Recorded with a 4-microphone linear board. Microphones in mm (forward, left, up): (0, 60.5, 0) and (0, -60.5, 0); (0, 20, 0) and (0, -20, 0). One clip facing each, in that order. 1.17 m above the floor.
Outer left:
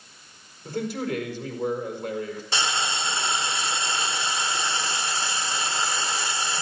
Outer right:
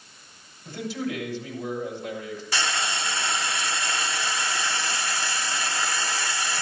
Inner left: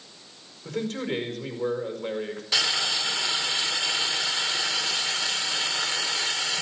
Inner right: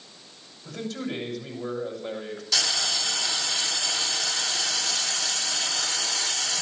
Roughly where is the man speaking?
Left.